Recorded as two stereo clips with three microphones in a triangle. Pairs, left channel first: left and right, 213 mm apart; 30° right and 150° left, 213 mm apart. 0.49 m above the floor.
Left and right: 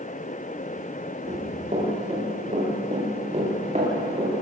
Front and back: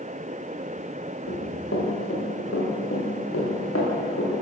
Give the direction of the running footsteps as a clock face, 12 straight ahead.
1 o'clock.